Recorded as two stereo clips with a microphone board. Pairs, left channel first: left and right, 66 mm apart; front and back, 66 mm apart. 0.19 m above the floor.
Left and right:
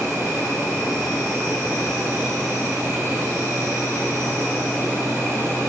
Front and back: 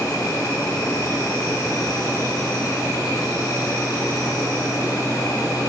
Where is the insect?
30° right, 3.5 m.